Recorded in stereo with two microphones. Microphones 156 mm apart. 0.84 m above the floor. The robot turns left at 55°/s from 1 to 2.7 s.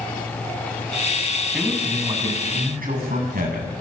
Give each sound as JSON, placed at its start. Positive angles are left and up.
{"t": 1.5, "sound": "a man speaking", "azimuth_deg": -5, "distance_m": 6.0}